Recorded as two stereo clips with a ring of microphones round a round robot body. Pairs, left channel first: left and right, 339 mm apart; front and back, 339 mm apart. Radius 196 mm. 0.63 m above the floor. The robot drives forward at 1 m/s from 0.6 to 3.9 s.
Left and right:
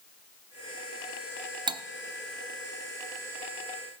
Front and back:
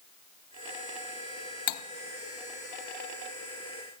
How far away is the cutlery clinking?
About 0.8 m.